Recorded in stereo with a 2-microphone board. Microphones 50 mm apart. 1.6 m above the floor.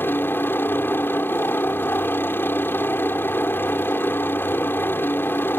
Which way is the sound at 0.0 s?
50° left (ahead or behind).